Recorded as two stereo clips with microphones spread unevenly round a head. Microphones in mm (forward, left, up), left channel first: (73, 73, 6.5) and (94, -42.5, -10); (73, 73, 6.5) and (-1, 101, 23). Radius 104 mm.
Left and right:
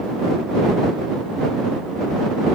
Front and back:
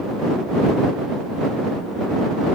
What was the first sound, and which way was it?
Only background noise.